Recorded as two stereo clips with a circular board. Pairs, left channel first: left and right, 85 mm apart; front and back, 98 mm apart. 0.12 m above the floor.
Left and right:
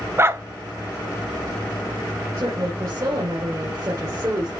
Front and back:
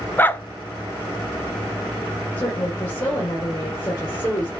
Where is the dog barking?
55° right, 0.5 m.